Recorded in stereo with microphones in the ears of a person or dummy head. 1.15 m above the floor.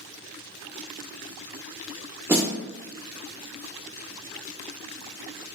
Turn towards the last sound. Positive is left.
turn(degrees=-10)  # may be behind; listen again after turning